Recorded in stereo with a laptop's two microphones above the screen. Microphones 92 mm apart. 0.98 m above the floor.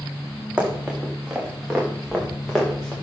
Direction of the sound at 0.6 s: 10° right (ahead or behind).